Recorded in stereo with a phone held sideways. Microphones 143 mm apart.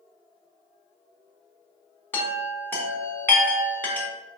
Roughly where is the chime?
Centre.